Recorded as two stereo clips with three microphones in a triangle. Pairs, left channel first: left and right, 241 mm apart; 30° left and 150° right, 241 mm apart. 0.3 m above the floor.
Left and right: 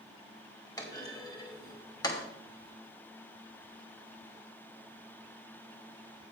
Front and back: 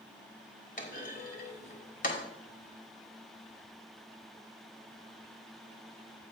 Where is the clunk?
30° left, 1.4 m.